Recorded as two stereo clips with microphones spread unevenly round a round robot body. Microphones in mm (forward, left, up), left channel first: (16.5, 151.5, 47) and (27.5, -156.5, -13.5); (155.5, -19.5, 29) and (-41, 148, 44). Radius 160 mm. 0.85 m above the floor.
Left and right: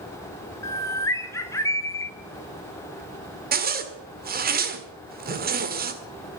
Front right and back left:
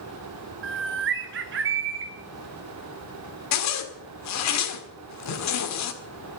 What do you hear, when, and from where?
0.6 s a bird: straight behind, 1.2 m
3.5 s a zipper: 25° right, 1.8 m